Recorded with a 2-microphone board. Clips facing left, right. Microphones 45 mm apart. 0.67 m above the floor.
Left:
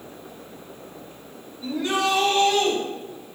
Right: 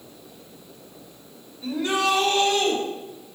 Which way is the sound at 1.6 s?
5° right (ahead or behind).